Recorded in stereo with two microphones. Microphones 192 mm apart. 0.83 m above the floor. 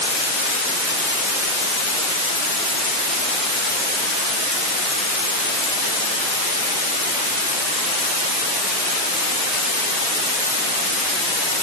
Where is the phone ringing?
I don't hear a phone ringing.